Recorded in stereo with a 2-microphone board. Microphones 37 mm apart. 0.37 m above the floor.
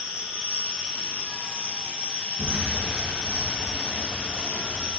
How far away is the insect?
About 6.5 m.